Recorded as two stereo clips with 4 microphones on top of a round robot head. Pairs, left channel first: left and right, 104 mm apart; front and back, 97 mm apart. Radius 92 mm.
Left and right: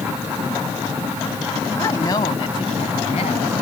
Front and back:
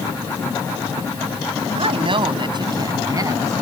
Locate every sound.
1.8 s a woman speaking: 160° left; by 3.5 s 125° left